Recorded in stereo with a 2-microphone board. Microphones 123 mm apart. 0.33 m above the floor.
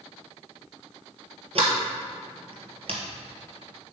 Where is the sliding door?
55° right (ahead or behind), 1.5 m.